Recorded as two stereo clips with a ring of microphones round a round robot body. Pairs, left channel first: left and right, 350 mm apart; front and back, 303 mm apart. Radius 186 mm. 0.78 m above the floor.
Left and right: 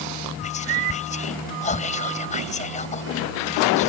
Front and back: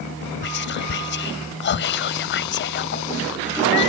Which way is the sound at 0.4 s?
30° left.